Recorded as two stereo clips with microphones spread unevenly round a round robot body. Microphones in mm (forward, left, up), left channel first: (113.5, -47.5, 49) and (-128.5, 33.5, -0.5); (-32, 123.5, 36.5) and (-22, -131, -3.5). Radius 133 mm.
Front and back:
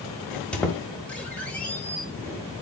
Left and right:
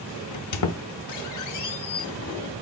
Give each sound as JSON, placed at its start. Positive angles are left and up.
{"t": 0.3, "sound": "a squeak", "azimuth_deg": 75, "distance_m": 0.6}